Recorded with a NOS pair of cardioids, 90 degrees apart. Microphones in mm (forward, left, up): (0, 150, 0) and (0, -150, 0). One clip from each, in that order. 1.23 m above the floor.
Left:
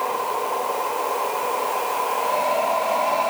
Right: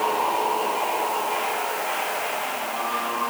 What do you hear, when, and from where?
Only background noise.